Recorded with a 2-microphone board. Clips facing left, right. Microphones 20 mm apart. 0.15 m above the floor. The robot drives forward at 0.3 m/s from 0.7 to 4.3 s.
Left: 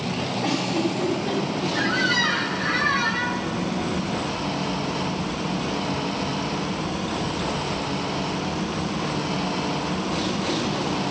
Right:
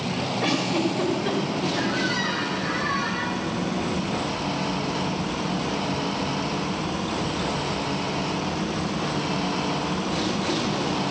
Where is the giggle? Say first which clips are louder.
Right 1 dB; 85° right, 6.5 m; by 1.9 s 80° right, 6.5 m.